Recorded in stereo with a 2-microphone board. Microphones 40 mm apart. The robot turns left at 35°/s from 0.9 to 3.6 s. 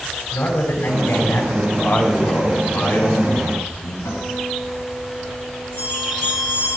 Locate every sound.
0.3 s a man speaking: 60° left (ahead or behind), 4 m; by 1.6 s 80° left, 4 m
1.7 s a man speaking: 140° left, 4.5 m; by 4.0 s 75° left, 4.5 m
4.0 s a guitar: 80° left, 9.5 m
5.8 s a bell: 85° left, 8 m